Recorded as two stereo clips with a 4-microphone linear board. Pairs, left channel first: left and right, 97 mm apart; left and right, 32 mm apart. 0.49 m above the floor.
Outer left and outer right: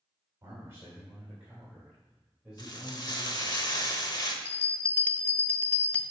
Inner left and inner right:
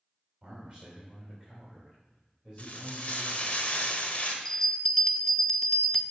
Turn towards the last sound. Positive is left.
turn(degrees=20)  # may be behind; listen again after turning